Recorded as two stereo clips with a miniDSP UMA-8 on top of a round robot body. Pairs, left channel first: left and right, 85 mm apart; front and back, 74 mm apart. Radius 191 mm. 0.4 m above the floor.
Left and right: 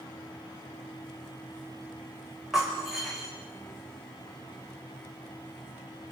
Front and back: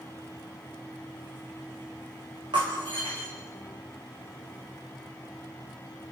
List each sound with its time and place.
2.5 s breaking glass: 175° right, 6 m